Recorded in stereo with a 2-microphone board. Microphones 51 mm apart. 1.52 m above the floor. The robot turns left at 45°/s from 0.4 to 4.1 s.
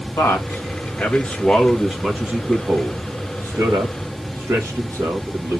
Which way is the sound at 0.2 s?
60° left (ahead or behind).